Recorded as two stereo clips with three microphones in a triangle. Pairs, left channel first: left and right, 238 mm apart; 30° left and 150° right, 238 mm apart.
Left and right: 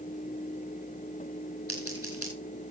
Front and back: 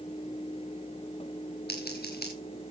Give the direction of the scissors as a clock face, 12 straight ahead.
9 o'clock.